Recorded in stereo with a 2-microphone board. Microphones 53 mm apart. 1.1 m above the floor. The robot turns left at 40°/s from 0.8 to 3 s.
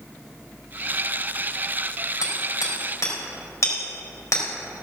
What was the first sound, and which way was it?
Hammering, 85° left.